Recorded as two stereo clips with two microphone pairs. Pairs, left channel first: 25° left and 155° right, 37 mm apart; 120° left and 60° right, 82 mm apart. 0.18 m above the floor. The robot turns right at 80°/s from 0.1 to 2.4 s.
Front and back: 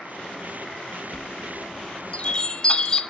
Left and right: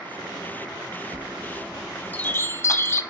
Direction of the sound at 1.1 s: 20° right.